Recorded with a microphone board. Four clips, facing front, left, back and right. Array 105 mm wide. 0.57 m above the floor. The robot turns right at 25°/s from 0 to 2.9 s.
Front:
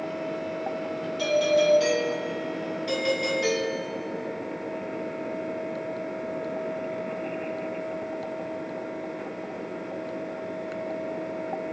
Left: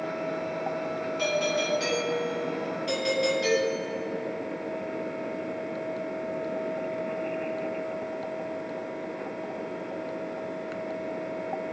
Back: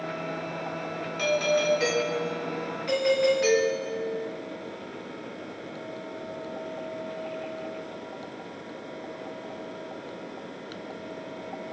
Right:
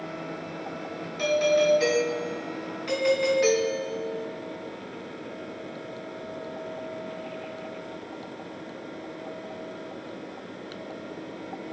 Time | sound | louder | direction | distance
1.2 | a doorbell | right 7 dB, front 3 dB | 165° right | 2.5 m